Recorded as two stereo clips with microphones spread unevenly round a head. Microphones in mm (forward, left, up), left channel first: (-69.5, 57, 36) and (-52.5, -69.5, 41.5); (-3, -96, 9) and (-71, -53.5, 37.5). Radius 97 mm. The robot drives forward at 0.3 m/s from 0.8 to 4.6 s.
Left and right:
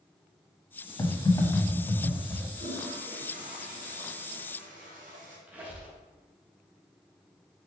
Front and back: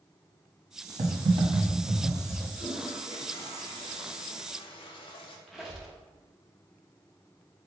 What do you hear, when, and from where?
1.0 s typing on a keyboard: 160° left, 0.9 m; by 2.5 s 165° left, 1.3 m
2.6 s a toilet flushing: 25° right, 1.1 m; by 5.4 s 50° right, 0.6 m
5.5 s a squeak: 150° right, 0.9 m